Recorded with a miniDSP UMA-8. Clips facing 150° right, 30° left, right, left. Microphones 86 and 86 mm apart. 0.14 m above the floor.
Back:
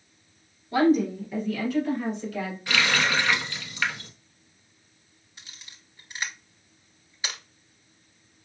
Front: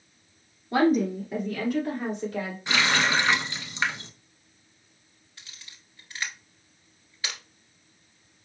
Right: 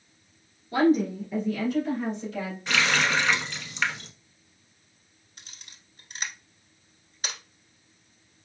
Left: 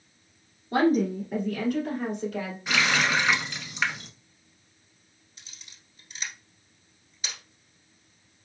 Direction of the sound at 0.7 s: 60° left.